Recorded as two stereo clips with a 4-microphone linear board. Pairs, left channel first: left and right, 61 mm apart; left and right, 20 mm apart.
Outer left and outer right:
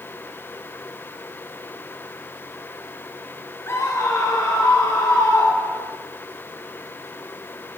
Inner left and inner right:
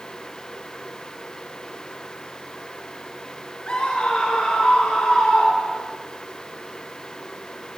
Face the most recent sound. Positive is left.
turn(degrees=60)  # may be behind; listen again after turning